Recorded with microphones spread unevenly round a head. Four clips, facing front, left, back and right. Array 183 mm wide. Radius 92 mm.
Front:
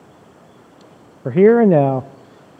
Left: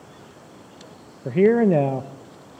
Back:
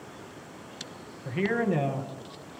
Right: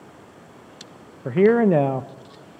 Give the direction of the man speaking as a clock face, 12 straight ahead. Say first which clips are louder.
Even, front 17 dB; 12 o'clock.